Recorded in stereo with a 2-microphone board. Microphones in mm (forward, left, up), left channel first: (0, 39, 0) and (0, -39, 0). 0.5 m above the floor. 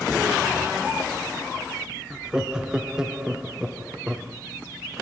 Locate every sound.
2.1 s laughter: 10° right (ahead or behind), 0.7 m